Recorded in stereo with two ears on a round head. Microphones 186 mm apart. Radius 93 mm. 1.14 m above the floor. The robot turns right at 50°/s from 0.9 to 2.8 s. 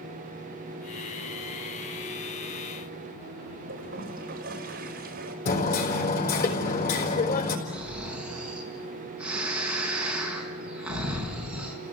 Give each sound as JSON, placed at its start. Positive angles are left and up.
{"t": 3.7, "sound": "a toilet flushing", "side_deg": -45, "distance_m": 4.0}
{"t": 5.5, "sound": "hammering", "side_deg": 50, "distance_m": 4.5}
{"t": 7.7, "sound": "snoring", "side_deg": -5, "distance_m": 4.5}